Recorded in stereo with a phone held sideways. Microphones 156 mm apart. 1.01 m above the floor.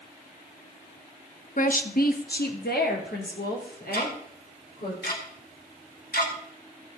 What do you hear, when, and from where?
1.6 s a woman speaking: 55° left (ahead or behind), 1.0 m; by 4.9 s 75° left (ahead or behind), 4 m
3.9 s ticking: 80° left, 2 m